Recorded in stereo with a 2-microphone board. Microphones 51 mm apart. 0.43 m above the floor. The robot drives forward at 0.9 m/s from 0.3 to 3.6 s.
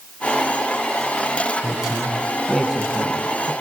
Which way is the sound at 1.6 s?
10° right (ahead or behind).